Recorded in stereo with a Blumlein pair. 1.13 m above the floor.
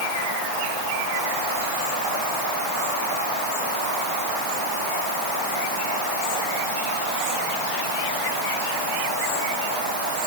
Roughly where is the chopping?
No chopping in this recording.